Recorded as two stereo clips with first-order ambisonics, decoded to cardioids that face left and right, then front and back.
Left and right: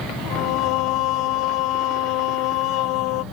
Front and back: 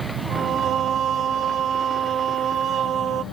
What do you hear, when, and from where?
0.3 s singing: 125° left, 0.7 m